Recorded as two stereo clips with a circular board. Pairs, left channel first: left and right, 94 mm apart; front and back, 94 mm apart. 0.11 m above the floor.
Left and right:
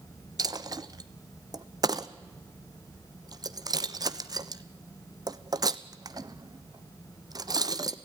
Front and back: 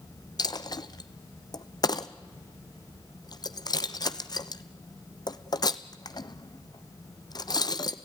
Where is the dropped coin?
45° right, 0.7 m.